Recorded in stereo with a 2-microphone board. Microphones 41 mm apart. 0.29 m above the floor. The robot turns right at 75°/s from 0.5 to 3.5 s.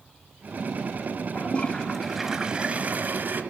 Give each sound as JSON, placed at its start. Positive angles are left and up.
{"t": 1.4, "sound": "a toilet flushing", "azimuth_deg": 125, "distance_m": 1.0}